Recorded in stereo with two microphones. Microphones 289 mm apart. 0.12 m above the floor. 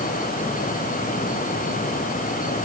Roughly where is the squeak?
No squeak in this recording.